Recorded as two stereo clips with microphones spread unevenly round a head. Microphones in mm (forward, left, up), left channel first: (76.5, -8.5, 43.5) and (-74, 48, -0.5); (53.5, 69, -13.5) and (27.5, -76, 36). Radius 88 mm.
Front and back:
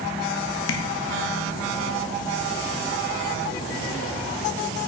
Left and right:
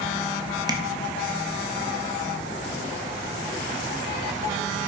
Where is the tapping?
35° right, 1.6 m.